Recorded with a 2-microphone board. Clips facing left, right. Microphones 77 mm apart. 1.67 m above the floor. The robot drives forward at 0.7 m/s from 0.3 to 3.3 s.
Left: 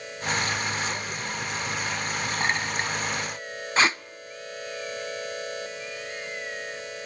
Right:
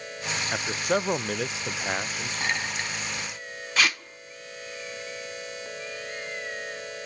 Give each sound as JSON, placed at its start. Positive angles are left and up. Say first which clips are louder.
{"t": 0.5, "sound": "a man speaking", "louder": "right 3 dB", "side_deg": -45, "distance_m": 0.8}
{"t": 2.4, "sound": "a clink", "louder": "left 2 dB", "side_deg": 35, "distance_m": 8.0}
{"t": 3.8, "sound": "tape being pulled", "louder": "left 3 dB", "side_deg": 30, "distance_m": 0.5}